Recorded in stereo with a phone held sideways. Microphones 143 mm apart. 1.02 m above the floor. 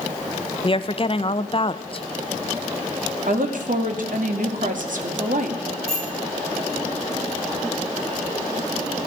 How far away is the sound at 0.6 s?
About 0.6 m.